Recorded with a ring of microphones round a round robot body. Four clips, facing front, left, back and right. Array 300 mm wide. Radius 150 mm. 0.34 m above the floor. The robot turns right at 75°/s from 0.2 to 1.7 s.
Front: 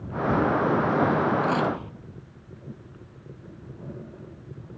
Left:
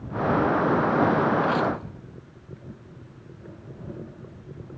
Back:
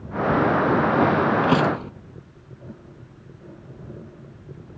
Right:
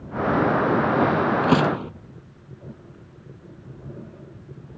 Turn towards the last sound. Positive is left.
turn(degrees=-110)